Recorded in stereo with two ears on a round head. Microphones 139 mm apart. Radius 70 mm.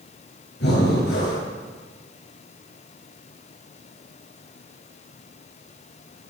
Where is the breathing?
80° left, 8 m.